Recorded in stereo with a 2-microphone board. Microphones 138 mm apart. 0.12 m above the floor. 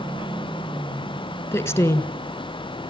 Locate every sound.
1.5 s a woman speaking: 20° left (ahead or behind), 1.1 m